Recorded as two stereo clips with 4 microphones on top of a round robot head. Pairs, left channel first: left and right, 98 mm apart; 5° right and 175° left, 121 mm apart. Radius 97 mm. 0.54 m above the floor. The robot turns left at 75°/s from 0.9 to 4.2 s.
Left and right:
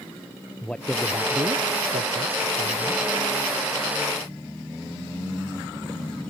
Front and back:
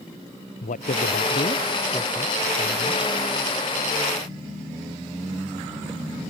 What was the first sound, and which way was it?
A man speaking, 5° left.